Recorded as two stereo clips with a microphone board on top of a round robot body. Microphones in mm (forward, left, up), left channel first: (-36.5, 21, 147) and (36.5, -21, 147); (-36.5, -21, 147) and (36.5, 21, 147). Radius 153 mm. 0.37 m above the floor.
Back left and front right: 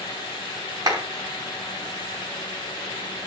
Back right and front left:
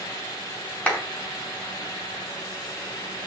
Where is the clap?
75° right, 4.5 m.